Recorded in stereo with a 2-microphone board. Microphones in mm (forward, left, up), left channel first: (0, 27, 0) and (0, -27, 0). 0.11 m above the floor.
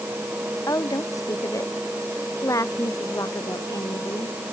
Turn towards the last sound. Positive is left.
turn(degrees=75)  # may be behind; listen again after turning